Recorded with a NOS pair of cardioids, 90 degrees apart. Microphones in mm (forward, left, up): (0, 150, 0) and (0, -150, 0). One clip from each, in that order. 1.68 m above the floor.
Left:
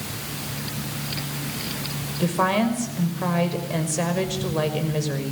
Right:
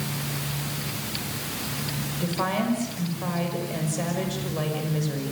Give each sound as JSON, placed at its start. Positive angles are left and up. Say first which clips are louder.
{"t": 2.2, "sound": "a woman speaking", "louder": "left 6 dB", "azimuth_deg": 45, "distance_m": 6.0}